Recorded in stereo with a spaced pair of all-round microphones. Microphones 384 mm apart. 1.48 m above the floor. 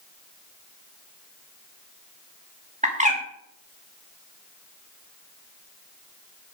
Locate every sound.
2.8 s a bird: 20° right (ahead or behind), 3 m